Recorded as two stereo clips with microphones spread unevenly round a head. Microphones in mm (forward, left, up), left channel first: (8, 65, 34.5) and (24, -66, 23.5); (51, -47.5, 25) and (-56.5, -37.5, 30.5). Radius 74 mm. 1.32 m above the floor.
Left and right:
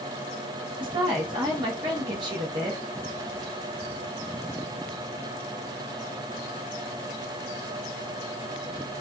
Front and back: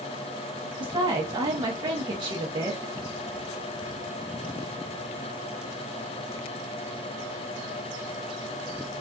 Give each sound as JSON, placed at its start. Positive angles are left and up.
{"t": 0.8, "sound": "a woman speaking", "azimuth_deg": -140, "distance_m": 0.8}